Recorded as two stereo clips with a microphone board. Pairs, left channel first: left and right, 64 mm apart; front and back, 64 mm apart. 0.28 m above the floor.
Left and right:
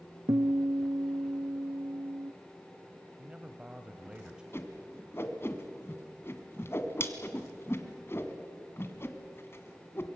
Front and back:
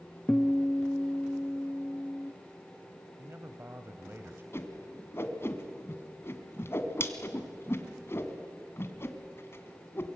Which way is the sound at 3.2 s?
160° right.